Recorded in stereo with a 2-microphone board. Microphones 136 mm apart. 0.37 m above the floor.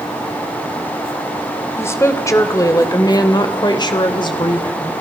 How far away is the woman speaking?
About 1.8 m.